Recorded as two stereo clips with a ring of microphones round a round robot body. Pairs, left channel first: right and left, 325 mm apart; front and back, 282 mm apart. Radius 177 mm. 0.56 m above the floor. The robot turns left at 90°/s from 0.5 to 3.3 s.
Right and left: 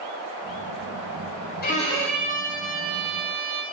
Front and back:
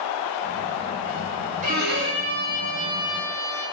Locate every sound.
1.6 s a violin: 135° right, 0.6 m; by 3.6 s 75° left, 0.6 m